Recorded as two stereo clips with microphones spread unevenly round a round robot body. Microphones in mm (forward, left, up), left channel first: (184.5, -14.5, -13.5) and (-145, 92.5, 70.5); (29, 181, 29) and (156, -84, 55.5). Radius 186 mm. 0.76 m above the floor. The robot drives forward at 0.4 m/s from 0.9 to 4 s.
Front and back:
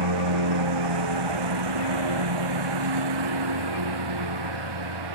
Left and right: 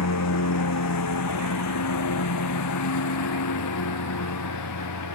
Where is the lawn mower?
160° left; by 5.2 s 155° left.